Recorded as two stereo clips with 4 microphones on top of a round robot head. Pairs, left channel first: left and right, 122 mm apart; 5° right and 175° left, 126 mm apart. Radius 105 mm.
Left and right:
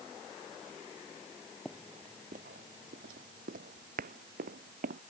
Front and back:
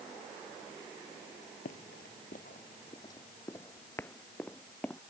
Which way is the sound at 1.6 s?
Straight ahead.